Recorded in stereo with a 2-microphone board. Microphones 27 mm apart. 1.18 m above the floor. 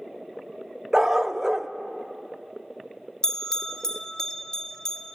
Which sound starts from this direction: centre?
A bell, at 3.2 s.